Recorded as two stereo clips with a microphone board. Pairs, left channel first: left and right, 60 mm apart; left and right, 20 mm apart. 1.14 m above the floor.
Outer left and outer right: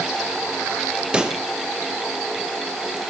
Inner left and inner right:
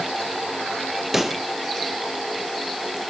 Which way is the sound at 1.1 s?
15° right (ahead or behind).